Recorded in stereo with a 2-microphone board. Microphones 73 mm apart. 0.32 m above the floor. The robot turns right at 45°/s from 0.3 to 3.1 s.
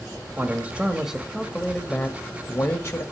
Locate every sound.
0.4 s a man speaking: 50° right, 1.1 m; by 3.0 s 70° left, 1.1 m